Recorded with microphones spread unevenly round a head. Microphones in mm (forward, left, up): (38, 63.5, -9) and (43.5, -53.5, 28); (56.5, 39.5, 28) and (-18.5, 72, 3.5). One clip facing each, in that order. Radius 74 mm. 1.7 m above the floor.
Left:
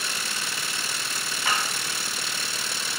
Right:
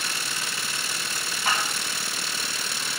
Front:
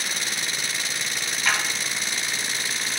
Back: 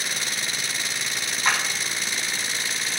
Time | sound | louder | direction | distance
1.4 | a clap | right 1 dB, back 1 dB | 85° left | 4.5 m